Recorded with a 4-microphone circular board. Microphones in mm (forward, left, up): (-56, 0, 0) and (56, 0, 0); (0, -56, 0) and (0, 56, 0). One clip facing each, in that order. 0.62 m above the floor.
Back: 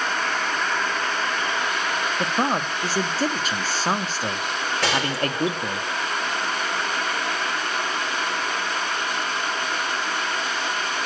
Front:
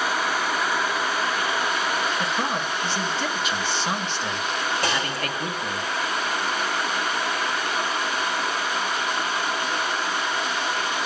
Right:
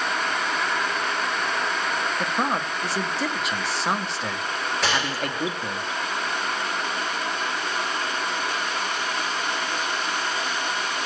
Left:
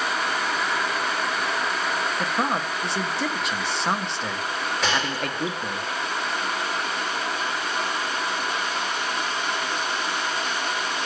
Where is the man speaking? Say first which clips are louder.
Back 2 dB, even; straight behind, 0.7 m.